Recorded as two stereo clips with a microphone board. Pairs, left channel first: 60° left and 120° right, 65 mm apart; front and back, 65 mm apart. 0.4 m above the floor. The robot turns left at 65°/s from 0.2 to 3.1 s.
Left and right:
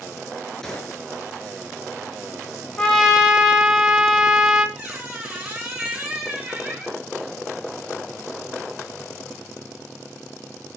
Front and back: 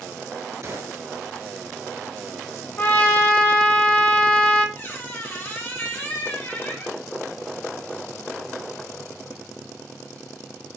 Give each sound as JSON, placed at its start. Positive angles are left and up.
{"t": 0.6, "sound": "a gunshot", "azimuth_deg": 140, "distance_m": 0.9}
{"t": 2.8, "sound": "a trumpet", "azimuth_deg": -5, "distance_m": 1.3}
{"t": 4.8, "sound": "a squeak", "azimuth_deg": -55, "distance_m": 1.8}